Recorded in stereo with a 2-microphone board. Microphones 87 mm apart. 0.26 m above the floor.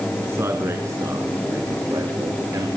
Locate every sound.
0.2 s a man speaking: 30° right (ahead or behind), 2.5 m; by 2.7 s 40° right (ahead or behind), 4 m